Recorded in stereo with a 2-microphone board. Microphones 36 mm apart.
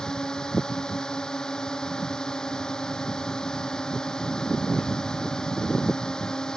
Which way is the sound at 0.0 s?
20° left (ahead or behind).